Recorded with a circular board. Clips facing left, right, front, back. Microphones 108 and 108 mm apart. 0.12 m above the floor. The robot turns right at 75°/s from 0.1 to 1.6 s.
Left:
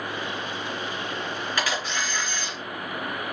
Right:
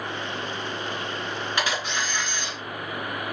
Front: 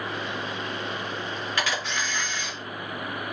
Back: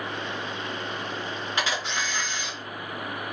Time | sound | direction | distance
1.6 | a camera shutter | 140° right | 1.7 m